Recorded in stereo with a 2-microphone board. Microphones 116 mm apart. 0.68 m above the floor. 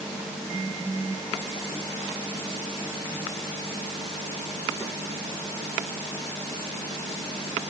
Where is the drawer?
I don't hear a drawer.